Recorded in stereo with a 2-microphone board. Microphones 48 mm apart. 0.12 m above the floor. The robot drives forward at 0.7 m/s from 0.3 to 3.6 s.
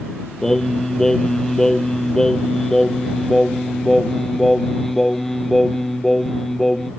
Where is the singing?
10° left (ahead or behind); by 6.9 s 5° left (ahead or behind).